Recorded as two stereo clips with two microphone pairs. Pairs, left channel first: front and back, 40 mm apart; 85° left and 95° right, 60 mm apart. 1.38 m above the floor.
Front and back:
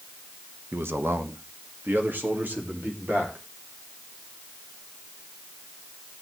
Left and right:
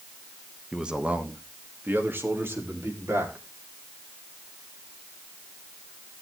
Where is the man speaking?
175° right, 1.3 m; by 3.4 s 140° right, 4 m.